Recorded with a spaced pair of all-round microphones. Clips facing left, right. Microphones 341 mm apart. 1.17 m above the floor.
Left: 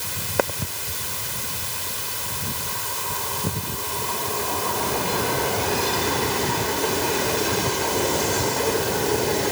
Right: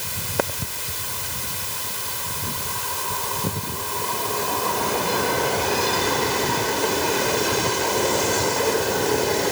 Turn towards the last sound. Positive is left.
No sound to turn to.